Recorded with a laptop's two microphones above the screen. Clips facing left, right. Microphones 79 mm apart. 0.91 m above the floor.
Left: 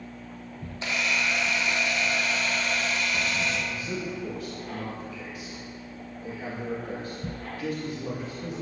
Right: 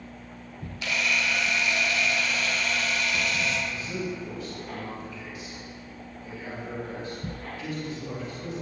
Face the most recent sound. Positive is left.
turn(degrees=50)  # may be behind; listen again after turning